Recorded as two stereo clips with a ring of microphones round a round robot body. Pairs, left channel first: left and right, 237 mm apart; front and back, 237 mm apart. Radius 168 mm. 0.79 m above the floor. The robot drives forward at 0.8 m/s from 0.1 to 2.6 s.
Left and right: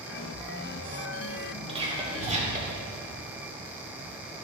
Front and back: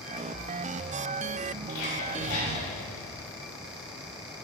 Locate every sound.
1.7 s whispering: 25° right, 3.5 m; by 2.8 s 35° right, 2.5 m